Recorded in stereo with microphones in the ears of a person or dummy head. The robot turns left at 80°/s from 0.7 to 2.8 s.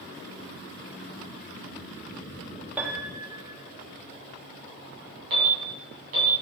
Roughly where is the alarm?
Right.